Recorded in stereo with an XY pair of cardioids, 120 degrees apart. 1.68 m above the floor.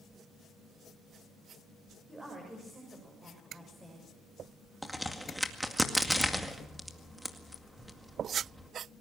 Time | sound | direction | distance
2.1 | a woman speaking | 20° right | 7 m
4.8 | a crack | straight ahead | 2 m